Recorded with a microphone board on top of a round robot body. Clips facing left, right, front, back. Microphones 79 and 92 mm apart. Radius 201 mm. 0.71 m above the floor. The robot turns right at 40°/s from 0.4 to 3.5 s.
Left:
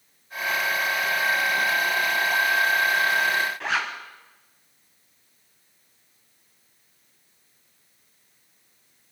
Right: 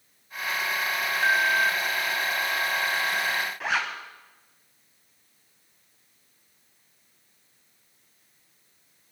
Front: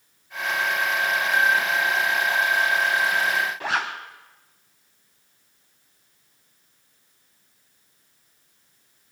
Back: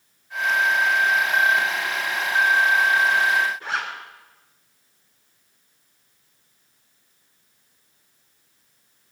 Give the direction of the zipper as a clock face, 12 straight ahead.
12 o'clock.